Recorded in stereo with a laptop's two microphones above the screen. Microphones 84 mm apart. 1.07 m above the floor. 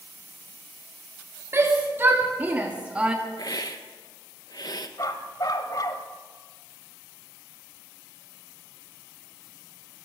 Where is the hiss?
55° left (ahead or behind), 0.8 m.